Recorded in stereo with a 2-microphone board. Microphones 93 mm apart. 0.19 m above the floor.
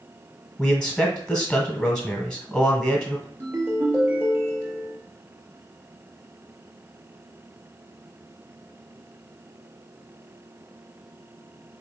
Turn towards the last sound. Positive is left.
turn(degrees=-20)  # may be behind; listen again after turning